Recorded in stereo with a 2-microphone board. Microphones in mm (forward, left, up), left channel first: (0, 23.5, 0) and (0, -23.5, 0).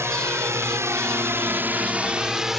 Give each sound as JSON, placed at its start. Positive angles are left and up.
{"t": 0.0, "sound": "a drone", "side_deg": -70}